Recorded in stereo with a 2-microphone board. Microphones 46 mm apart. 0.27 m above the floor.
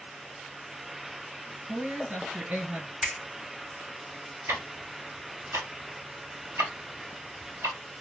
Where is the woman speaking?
35° right (ahead or behind), 1.9 m.